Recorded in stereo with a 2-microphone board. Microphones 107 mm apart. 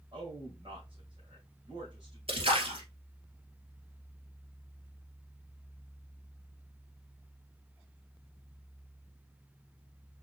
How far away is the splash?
About 1.8 m.